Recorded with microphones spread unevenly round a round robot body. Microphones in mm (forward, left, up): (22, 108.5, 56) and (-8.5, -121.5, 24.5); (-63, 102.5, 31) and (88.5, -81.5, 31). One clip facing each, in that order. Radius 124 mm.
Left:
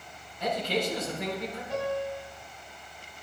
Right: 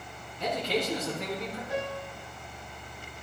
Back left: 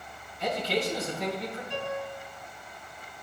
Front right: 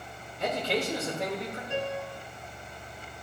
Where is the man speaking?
95° right, 4.5 m.